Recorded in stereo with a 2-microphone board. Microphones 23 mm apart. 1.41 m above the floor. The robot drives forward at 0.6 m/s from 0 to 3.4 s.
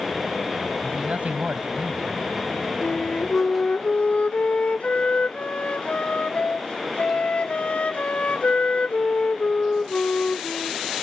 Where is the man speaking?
75° right (ahead or behind); by 2.3 s 80° right.